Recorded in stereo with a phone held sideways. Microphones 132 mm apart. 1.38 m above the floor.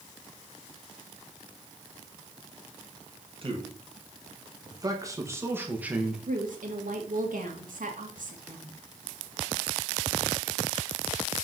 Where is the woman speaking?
75° right (ahead or behind), 2.0 m.